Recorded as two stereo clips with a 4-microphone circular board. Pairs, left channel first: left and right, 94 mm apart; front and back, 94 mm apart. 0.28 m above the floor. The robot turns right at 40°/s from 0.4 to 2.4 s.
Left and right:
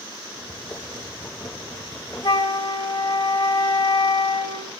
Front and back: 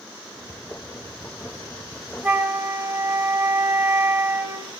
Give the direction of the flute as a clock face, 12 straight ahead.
8 o'clock.